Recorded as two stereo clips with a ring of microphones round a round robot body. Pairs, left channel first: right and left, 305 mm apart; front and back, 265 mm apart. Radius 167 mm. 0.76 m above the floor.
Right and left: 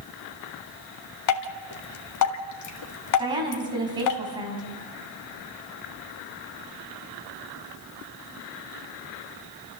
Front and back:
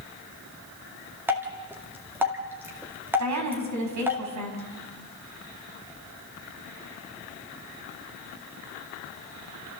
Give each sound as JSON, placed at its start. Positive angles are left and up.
{"t": 1.3, "sound": "dripping", "azimuth_deg": -100, "distance_m": 1.9}
{"t": 3.2, "sound": "a woman speaking", "azimuth_deg": 165, "distance_m": 5.5}